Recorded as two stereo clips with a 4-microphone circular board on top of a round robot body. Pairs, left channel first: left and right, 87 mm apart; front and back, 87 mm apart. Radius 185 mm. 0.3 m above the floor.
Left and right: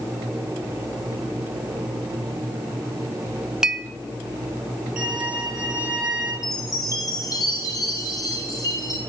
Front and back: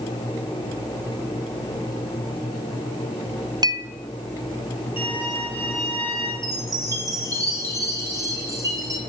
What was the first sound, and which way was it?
A clink, 170° right.